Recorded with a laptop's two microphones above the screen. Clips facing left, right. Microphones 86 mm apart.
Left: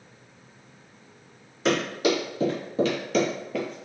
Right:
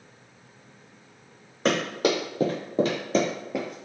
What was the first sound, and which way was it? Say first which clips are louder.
Running footsteps: even; 45° right (ahead or behind).